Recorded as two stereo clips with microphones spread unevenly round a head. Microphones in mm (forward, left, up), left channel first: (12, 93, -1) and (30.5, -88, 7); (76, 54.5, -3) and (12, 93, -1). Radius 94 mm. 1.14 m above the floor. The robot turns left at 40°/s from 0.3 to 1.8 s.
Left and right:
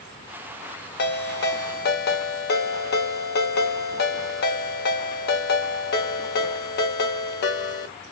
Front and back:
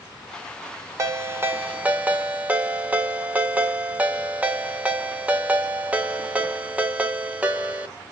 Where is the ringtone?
115° left, 0.6 m; by 7.9 s 85° left, 0.6 m.